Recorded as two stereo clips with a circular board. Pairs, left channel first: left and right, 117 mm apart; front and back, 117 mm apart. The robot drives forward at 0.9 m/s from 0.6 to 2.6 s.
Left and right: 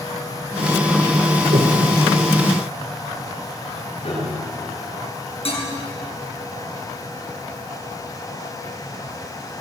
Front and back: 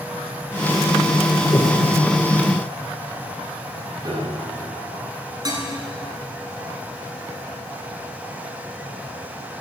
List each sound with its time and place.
1.5 s breathing: 70° right, 2.5 m; by 1.8 s 75° right, 2.5 m
4.0 s a piano: 125° left, 8 m
5.5 s dishes clattering: 125° left, 7 m